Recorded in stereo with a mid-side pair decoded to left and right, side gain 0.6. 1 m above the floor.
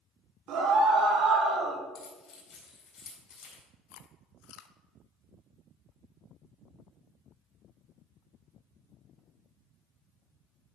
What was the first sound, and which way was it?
A scream, 55° right.